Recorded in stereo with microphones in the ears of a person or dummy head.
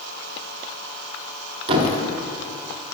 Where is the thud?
30° right (ahead or behind), 1.4 m.